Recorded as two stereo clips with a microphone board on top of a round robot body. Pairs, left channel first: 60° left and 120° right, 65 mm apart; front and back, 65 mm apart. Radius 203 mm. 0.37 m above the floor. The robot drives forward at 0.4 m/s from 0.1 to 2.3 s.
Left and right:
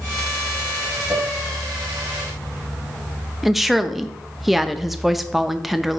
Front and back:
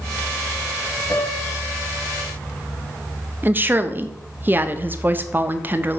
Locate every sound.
1.1 s a piano: 55° right, 1.4 m; by 1.6 s 65° right, 1.3 m
3.4 s a woman speaking: 155° left, 0.8 m